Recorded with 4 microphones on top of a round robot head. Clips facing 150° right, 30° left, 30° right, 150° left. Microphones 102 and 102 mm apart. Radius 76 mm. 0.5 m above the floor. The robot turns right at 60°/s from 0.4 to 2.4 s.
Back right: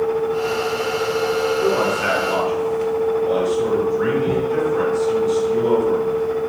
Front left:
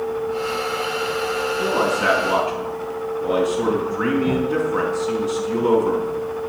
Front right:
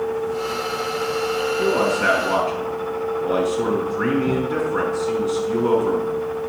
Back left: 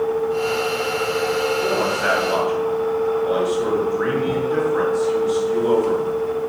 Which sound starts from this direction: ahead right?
A man speaking, at 1.6 s.